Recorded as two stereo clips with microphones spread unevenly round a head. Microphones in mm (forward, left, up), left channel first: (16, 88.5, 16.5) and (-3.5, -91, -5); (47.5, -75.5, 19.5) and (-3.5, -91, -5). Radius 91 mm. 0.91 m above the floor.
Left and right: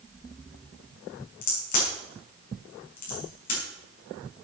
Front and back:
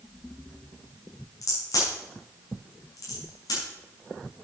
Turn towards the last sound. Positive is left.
turn(degrees=40)